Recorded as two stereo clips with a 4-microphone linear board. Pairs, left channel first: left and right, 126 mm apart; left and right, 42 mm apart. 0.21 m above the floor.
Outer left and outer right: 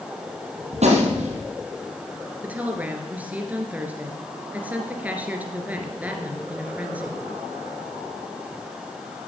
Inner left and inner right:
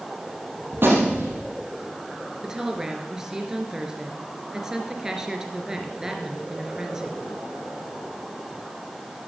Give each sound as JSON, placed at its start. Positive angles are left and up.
{"t": 0.7, "sound": "a gunshot", "side_deg": -60, "distance_m": 4.5}
{"t": 2.4, "sound": "a woman speaking", "side_deg": -10, "distance_m": 3.0}